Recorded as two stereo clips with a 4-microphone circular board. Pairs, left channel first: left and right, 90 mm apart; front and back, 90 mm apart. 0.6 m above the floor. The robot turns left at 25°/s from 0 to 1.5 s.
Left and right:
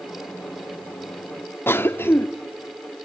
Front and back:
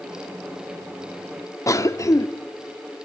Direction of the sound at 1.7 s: 35° left.